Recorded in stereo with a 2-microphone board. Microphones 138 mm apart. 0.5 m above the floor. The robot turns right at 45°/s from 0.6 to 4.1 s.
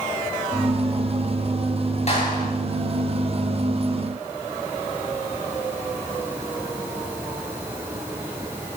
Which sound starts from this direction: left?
A clap, at 2.1 s.